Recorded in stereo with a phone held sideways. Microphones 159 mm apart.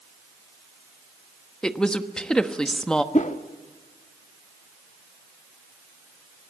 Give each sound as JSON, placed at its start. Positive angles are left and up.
{"t": 1.6, "sound": "a woman speaking", "side_deg": 5, "distance_m": 1.1}
{"t": 3.1, "sound": "a whoosh", "side_deg": 50, "distance_m": 1.0}